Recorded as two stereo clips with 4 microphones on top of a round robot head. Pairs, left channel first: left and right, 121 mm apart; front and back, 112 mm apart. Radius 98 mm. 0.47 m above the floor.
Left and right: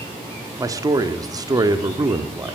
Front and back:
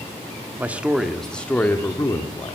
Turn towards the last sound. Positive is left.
turn(degrees=-40)